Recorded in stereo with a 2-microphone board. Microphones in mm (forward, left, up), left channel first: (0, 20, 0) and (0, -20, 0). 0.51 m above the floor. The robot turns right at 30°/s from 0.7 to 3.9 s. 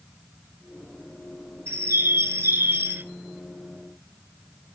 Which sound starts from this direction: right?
A bird, at 1.7 s.